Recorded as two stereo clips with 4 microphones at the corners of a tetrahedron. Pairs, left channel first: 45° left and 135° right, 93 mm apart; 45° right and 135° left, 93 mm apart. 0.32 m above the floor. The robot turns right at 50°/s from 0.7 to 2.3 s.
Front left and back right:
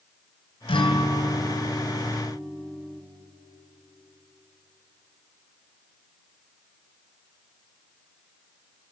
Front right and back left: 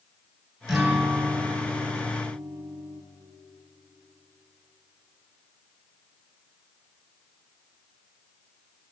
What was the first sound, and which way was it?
A guitar, 45° left.